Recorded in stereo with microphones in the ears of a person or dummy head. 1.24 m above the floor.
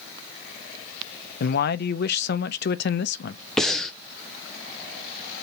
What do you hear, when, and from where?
1.4 s a man speaking: 55° left (ahead or behind), 0.6 m
3.6 s breathing: centre (ahead or behind), 0.5 m